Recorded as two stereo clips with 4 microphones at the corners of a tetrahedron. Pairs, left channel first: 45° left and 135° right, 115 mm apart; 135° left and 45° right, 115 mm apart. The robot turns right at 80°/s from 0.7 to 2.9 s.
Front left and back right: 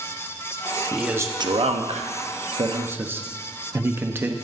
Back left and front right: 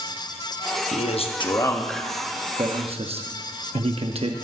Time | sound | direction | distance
0.9 | a man speaking | 135° left | 0.9 m